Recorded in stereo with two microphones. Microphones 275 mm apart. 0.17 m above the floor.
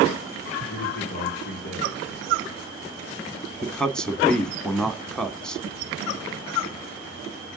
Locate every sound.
0.7 s a man speaking: 40° left (ahead or behind), 3 m
3.6 s a man speaking: centre (ahead or behind), 1.1 m